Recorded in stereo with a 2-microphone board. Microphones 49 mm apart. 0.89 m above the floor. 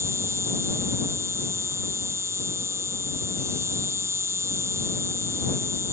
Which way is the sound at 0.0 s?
75° right (ahead or behind).